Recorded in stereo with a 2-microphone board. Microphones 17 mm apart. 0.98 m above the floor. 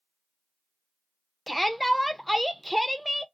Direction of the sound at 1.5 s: Centre (ahead or behind).